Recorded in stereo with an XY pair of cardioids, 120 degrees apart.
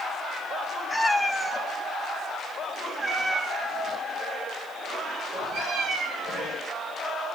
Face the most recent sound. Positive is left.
turn(degrees=-70)